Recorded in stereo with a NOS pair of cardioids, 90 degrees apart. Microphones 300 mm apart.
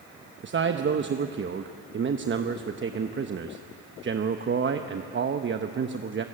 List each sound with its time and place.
0.4 s a man speaking: 40° right, 1.1 m